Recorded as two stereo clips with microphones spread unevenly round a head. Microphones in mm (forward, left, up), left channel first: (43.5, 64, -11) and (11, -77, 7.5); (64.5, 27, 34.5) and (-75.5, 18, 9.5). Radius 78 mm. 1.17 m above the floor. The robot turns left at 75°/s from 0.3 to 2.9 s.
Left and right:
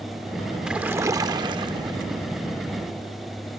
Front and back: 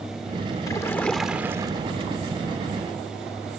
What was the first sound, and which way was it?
A splash, 30° right.